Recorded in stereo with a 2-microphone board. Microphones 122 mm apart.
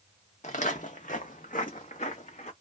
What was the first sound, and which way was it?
Footsteps, 65° left (ahead or behind).